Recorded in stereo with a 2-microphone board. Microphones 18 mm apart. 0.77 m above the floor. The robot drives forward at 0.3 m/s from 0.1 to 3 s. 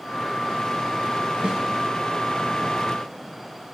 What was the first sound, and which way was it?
A snare drum, 65° right (ahead or behind).